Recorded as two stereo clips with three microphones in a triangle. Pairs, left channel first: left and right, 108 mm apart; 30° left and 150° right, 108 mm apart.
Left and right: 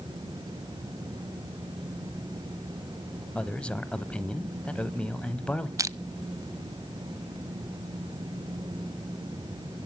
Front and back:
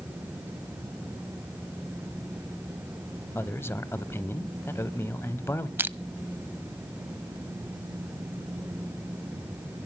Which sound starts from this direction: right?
Crushing, at 5.8 s.